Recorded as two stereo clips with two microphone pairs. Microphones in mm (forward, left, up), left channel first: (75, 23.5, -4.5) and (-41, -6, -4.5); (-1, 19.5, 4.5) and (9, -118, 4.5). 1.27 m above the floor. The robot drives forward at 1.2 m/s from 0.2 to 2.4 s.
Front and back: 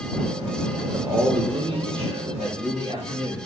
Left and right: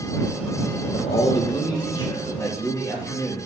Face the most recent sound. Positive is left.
turn(degrees=160)